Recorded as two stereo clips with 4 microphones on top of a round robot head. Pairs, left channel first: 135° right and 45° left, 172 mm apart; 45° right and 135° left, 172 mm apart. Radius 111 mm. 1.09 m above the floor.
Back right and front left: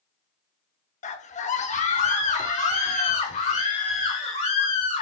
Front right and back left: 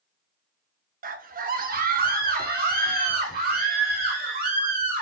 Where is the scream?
175° left, 1.0 m.